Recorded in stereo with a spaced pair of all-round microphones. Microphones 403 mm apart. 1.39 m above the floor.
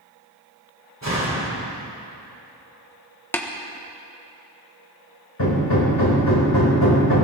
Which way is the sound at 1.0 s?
40° right (ahead or behind).